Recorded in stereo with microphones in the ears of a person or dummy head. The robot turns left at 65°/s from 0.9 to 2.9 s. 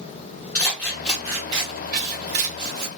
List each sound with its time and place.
0.6 s scissors: 15° left, 1.1 m; by 2.9 s 115° right, 1.1 m